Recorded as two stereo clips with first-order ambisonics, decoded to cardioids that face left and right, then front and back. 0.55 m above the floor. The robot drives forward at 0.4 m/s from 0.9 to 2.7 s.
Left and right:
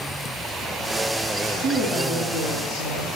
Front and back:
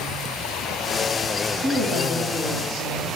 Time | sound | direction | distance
1.6 | a woman speaking | 175° right | 3.5 m